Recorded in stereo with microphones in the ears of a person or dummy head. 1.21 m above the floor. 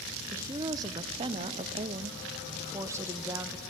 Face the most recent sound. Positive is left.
turn(degrees=-10)  # may be behind; listen again after turning